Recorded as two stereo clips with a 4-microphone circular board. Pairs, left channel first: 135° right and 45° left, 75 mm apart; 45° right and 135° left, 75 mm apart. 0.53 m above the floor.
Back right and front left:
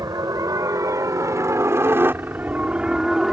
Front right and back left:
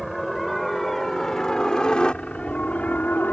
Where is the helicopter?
45° left; by 3.3 s 35° right.